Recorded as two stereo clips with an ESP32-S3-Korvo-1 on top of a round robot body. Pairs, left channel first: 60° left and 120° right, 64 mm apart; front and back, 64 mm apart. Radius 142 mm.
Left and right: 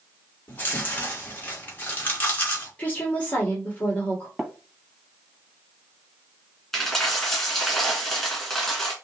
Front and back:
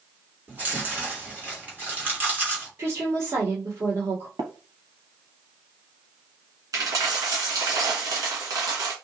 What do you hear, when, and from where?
0.5 s chewing: 120° left, 2.5 m
2.8 s a woman speaking: 130° left, 2 m
4.4 s tapping: 155° left, 0.9 m
6.7 s a dropped coin: 145° left, 1.8 m